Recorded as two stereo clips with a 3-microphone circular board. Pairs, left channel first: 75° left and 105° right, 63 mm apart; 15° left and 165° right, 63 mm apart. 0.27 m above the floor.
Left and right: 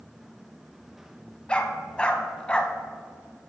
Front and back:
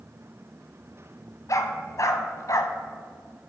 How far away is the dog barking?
About 0.8 m.